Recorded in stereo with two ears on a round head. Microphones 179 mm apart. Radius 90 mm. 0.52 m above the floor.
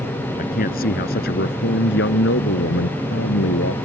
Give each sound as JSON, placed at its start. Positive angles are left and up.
{"t": 0.4, "sound": "a man speaking", "side_deg": 45}